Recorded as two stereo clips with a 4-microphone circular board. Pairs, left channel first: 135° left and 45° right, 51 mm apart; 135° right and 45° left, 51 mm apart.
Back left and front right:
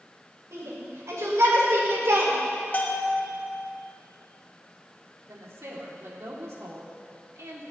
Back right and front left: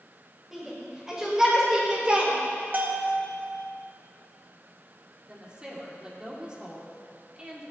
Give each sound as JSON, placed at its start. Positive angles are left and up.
{"t": 0.5, "sound": "a shout", "azimuth_deg": -35, "distance_m": 4.5}
{"t": 2.7, "sound": "a bell", "azimuth_deg": 90, "distance_m": 1.5}
{"t": 5.3, "sound": "a woman speaking", "azimuth_deg": -25, "distance_m": 2.5}